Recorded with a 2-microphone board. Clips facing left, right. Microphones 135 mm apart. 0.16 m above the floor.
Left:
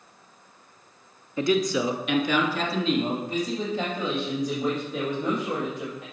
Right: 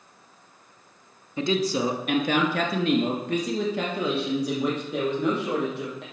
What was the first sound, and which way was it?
A man speaking, 20° right (ahead or behind).